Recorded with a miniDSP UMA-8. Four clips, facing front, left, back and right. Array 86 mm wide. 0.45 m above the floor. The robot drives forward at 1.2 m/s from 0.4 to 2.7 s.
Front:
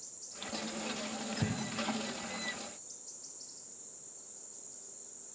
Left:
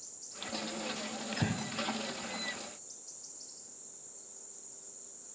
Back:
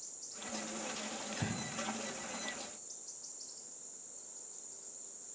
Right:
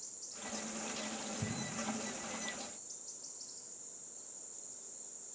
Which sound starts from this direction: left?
Breathing, at 1.3 s.